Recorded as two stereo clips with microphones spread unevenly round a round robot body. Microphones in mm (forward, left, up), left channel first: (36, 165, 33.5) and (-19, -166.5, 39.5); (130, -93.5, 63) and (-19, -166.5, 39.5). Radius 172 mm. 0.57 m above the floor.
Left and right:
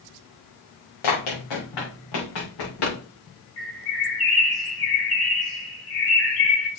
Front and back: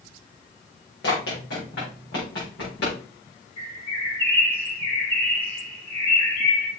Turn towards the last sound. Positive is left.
turn(degrees=95)